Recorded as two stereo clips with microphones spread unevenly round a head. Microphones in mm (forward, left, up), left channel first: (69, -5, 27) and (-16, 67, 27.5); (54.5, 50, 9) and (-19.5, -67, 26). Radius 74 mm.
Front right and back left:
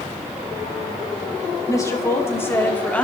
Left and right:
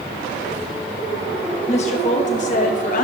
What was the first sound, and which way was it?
A woman speaking, 20° left.